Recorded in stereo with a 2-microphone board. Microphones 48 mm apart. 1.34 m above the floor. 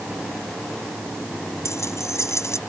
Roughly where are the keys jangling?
Left.